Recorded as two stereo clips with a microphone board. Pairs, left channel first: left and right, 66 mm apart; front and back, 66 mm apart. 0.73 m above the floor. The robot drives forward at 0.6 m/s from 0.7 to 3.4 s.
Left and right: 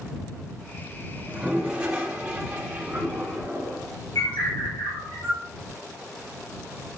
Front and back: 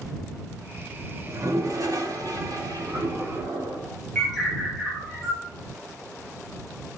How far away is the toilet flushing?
About 1.7 m.